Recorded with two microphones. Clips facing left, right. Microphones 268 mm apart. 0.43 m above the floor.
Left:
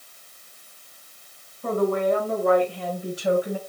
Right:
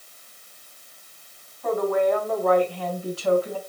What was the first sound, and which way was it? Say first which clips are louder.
A woman speaking: even; 40° left (ahead or behind).